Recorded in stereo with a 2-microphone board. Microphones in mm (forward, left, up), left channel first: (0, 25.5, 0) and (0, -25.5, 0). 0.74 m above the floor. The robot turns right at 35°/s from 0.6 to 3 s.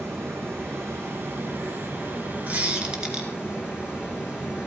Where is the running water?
105° right, 4 m; by 4.7 s 20° right, 4 m.